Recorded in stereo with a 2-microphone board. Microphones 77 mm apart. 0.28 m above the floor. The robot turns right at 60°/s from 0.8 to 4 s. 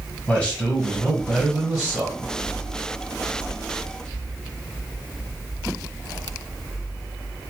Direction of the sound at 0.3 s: 15° left (ahead or behind).